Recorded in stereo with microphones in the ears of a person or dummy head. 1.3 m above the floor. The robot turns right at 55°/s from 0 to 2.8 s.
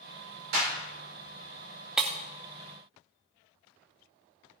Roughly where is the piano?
I don't hear a piano.